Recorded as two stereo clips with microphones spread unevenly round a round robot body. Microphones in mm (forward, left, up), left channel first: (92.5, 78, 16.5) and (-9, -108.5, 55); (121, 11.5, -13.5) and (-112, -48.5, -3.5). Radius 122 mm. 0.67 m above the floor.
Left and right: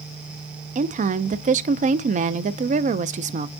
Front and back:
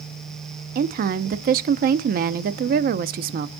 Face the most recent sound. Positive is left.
turn(degrees=-165)